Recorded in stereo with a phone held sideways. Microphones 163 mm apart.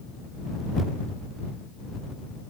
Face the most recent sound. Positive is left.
No sound to turn to.